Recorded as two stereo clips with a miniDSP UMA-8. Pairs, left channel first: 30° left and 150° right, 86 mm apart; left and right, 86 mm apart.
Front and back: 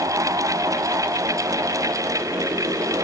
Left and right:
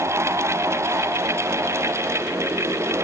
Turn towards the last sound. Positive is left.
No sound to turn to.